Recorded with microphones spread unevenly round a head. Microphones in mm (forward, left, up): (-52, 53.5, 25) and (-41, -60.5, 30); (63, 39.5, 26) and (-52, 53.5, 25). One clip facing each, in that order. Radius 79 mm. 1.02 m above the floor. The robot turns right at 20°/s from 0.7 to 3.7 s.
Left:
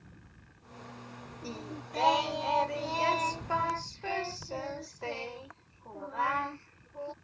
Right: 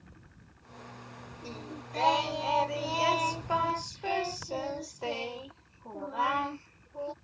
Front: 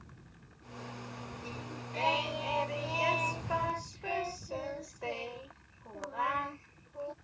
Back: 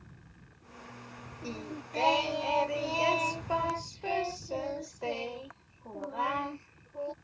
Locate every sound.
1.4 s singing: 175° left; by 7.1 s 140° right